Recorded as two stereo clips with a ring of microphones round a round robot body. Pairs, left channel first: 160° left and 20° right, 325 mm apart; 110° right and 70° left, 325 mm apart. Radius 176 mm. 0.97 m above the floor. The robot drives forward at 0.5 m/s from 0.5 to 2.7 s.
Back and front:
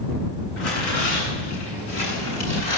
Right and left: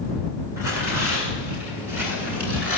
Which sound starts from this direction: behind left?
Tearing paper, at 0.6 s.